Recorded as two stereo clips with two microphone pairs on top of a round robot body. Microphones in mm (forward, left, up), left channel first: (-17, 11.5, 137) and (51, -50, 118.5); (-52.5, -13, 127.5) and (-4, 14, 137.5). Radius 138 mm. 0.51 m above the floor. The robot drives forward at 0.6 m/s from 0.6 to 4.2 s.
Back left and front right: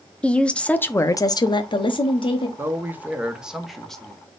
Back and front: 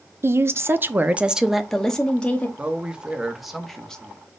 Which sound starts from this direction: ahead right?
A man speaking, at 2.6 s.